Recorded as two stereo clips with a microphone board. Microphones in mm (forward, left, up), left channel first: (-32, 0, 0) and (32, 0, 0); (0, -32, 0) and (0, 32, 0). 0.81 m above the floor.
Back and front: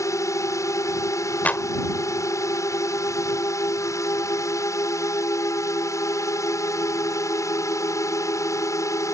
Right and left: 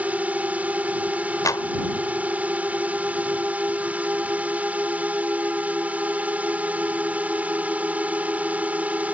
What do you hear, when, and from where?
0.0 s a drone: 155° left
1.4 s a clap: 115° right